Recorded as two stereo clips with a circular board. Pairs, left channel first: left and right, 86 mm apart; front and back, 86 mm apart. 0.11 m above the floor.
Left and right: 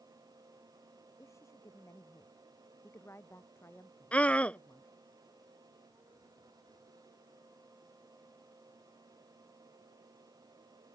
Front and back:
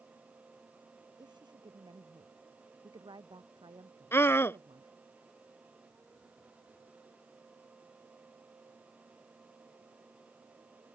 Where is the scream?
30° left.